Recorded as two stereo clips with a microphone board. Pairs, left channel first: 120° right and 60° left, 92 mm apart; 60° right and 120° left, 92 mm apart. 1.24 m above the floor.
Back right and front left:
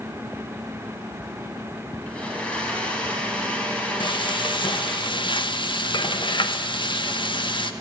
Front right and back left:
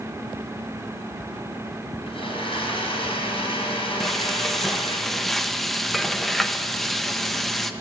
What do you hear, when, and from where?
2.1 s a blender: 40° right, 5.5 m
4.0 s frying: 150° right, 1.4 m